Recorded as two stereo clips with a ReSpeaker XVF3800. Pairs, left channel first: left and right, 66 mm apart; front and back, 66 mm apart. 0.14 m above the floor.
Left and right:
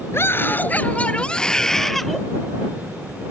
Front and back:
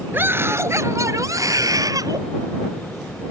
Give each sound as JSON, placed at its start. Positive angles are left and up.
{"t": 0.1, "sound": "a scream", "azimuth_deg": 130}